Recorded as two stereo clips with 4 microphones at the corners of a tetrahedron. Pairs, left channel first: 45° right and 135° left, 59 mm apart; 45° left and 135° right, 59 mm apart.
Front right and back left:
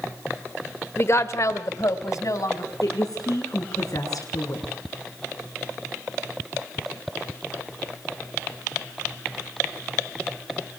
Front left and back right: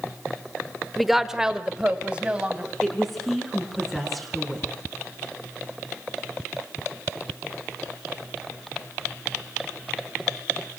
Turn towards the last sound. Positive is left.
turn(degrees=-45)